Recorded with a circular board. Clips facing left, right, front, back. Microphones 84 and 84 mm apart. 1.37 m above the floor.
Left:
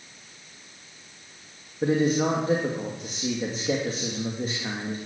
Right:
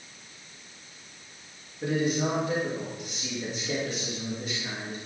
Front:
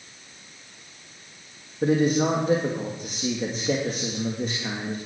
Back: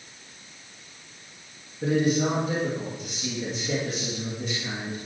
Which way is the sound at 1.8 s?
40° left.